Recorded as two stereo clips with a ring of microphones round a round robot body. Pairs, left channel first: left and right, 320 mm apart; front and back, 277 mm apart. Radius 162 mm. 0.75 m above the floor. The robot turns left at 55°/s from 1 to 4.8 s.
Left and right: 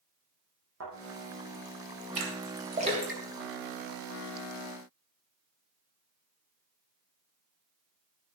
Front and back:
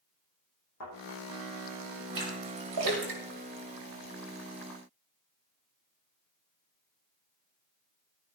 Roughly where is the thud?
Ahead right.